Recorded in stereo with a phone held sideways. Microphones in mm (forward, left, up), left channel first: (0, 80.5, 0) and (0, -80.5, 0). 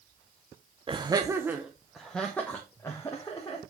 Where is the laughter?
35° right (ahead or behind), 0.9 m; by 3.6 s 25° left (ahead or behind), 1.8 m.